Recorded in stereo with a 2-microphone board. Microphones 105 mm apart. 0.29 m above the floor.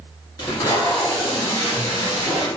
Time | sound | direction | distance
0.4 | tape being pulled | 40° left (ahead or behind) | 1.5 m